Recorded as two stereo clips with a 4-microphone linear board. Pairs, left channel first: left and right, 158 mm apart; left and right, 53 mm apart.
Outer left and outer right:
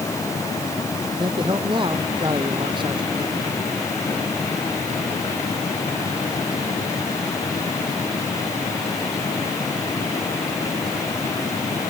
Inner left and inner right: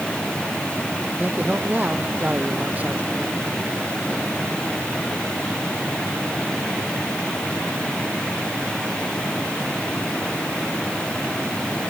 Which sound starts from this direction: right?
A man speaking, at 1.2 s.